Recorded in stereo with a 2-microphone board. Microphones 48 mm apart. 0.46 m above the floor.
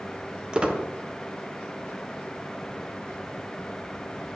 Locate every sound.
0.5 s a squeak: 20° right (ahead or behind), 0.9 m